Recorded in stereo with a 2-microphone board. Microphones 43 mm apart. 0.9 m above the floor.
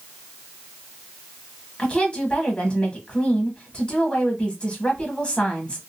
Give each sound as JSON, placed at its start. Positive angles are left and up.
{"t": 1.8, "sound": "a woman speaking", "side_deg": 30, "distance_m": 1.4}